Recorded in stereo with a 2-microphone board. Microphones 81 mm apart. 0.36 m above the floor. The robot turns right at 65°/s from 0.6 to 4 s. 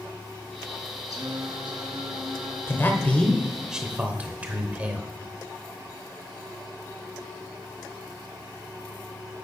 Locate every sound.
1.1 s singing: 125° right, 1.3 m; by 3.7 s 40° left, 1.3 m
2.7 s a man speaking: 125° left, 1.0 m; by 5.1 s 150° right, 1.0 m